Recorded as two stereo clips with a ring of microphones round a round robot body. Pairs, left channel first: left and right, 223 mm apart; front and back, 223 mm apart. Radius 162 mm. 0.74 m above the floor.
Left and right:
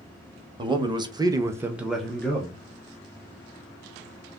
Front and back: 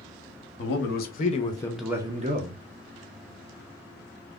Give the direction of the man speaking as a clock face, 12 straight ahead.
1 o'clock.